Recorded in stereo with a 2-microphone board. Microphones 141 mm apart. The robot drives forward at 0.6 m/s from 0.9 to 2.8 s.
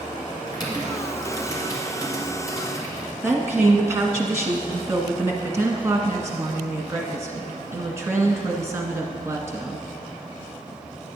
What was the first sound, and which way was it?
Typing on a keyboard, 30° left (ahead or behind).